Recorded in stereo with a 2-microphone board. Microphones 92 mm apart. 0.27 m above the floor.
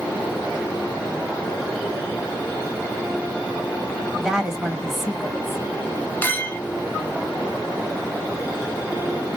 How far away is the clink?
About 0.8 m.